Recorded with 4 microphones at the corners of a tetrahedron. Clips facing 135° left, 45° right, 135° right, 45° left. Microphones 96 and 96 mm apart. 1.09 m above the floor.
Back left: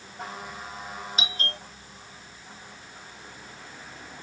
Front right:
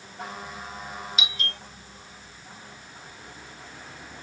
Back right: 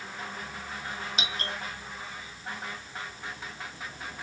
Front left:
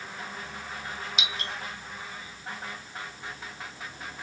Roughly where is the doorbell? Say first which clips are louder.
Back left 1 dB, back right 1 dB; behind.